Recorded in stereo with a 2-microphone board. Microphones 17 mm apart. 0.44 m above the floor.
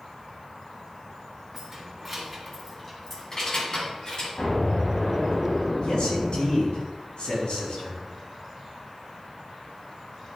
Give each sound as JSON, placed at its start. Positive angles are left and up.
{"t": 1.5, "sound": "keys jangling", "side_deg": -20, "distance_m": 3.0}
{"t": 4.4, "sound": "an explosion", "side_deg": 70, "distance_m": 3.5}
{"t": 5.8, "sound": "a man speaking", "side_deg": 70, "distance_m": 4.5}